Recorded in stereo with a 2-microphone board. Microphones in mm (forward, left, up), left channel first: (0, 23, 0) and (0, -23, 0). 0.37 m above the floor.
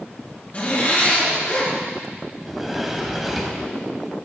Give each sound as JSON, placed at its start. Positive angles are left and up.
{"t": 0.5, "sound": "a zipper", "side_deg": 35, "distance_m": 3.5}
{"t": 2.4, "sound": "a sliding door", "side_deg": -5, "distance_m": 1.3}